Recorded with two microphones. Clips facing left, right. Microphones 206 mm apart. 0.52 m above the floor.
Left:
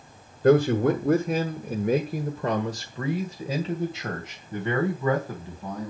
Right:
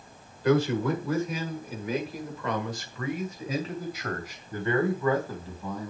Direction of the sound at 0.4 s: 50° left (ahead or behind).